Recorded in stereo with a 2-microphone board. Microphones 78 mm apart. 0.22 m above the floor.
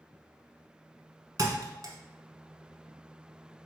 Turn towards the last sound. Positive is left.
turn(degrees=-55)  # may be behind; listen again after turning